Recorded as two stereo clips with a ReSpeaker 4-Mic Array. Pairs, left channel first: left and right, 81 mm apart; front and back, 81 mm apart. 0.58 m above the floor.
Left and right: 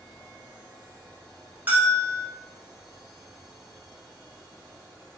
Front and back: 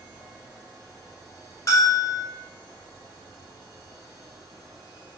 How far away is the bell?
About 1.3 m.